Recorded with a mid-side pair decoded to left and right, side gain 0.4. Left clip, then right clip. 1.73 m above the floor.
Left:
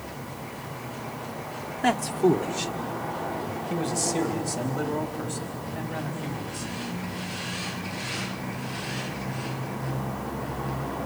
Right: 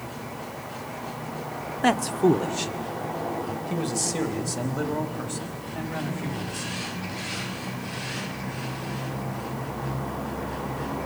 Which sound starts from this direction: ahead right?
A man speaking, at 1.8 s.